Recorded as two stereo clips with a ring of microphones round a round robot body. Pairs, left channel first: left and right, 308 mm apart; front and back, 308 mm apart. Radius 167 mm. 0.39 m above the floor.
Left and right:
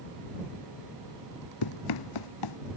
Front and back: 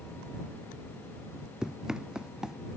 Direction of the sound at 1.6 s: 90° left.